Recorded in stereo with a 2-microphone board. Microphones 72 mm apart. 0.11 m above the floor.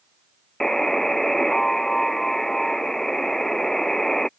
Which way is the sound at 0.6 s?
5° left (ahead or behind).